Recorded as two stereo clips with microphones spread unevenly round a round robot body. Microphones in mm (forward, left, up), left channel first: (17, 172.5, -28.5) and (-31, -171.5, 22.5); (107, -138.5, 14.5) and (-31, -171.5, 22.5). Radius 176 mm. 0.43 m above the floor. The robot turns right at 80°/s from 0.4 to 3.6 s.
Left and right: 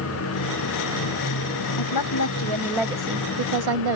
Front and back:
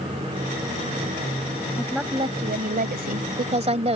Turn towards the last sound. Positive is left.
turn(degrees=-125)